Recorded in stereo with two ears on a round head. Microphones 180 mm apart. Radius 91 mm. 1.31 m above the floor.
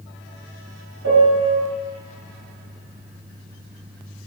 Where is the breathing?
No breathing in this recording.